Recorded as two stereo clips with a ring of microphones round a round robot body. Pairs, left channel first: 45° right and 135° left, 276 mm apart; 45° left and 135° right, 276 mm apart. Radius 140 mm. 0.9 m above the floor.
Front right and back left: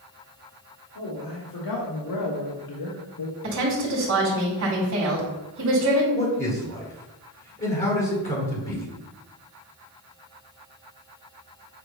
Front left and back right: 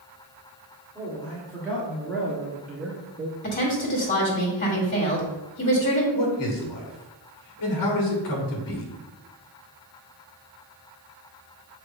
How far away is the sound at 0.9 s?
About 2 m.